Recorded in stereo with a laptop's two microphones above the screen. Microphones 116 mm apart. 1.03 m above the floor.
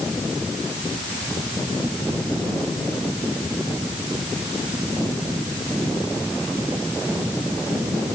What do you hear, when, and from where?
Only background noise.